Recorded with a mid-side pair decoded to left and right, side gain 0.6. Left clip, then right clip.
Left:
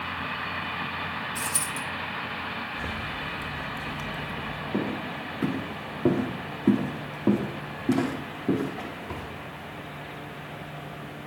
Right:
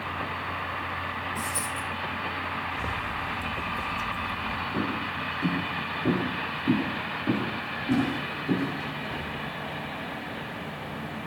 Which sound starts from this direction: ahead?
A zipper, at 2.7 s.